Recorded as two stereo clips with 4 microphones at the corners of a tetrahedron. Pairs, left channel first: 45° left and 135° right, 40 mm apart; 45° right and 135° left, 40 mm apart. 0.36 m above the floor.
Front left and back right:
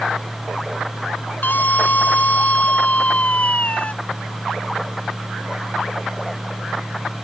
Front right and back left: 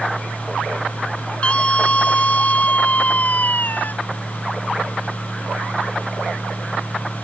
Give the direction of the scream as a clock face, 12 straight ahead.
12 o'clock.